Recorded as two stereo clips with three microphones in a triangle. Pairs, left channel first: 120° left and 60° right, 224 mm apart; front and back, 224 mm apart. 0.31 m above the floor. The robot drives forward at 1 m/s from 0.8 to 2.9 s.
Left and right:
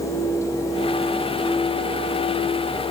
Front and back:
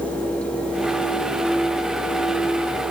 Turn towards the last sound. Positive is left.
No sound to turn to.